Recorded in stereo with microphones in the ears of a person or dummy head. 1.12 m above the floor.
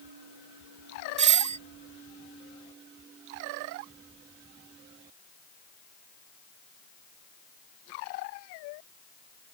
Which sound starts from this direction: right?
A doorbell, at 1.2 s.